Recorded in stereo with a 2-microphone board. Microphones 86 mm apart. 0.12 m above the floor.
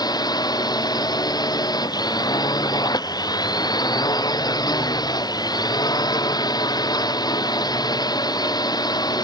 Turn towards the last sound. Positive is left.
turn(degrees=50)  # may be behind; listen again after turning